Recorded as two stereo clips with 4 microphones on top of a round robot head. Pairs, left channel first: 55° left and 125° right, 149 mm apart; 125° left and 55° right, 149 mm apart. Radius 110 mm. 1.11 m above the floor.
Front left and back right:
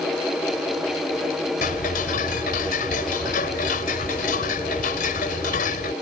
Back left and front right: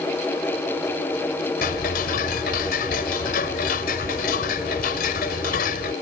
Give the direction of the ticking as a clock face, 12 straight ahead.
9 o'clock.